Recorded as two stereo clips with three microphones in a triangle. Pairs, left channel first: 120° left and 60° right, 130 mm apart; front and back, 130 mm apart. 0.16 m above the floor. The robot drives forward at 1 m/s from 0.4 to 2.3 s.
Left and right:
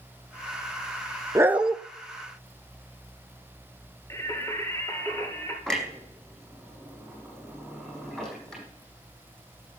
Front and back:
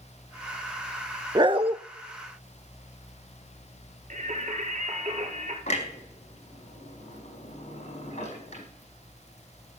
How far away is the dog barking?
About 0.5 m.